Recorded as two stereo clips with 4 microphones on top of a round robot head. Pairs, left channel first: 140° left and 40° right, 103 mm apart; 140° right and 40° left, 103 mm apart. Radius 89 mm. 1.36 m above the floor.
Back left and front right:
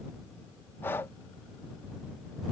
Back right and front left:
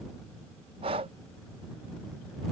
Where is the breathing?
70° left.